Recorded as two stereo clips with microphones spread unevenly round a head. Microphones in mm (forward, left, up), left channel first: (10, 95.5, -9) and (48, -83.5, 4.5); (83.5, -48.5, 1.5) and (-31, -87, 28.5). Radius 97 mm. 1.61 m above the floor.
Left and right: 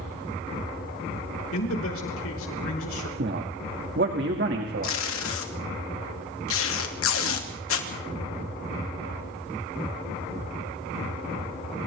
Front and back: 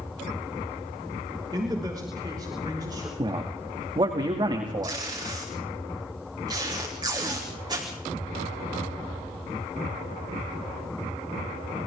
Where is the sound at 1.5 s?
130° left, 5 m.